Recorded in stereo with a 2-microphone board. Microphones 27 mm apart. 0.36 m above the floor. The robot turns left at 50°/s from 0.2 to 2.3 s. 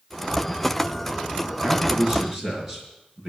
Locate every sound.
1.6 s a man speaking: 135° right, 5.5 m; by 3.3 s 170° right, 5.5 m